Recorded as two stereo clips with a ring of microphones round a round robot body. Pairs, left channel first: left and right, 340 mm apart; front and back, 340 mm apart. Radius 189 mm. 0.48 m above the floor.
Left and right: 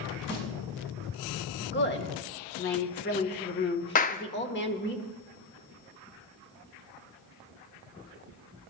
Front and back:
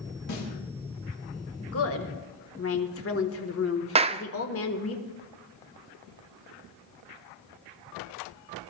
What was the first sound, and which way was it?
A snare drum, 35° left.